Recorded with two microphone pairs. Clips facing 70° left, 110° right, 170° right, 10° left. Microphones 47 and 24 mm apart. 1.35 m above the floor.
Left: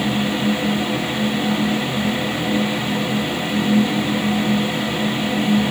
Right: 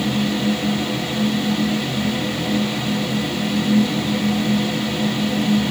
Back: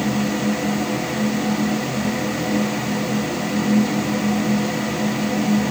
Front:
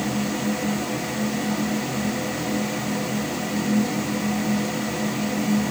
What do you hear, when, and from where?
Only background noise.